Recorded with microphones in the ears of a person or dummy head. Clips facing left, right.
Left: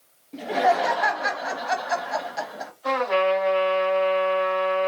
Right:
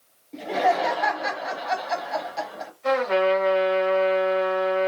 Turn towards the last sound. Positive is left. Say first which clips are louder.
# right 1 dB
turn(degrees=-30)  # may be behind; listen again after turning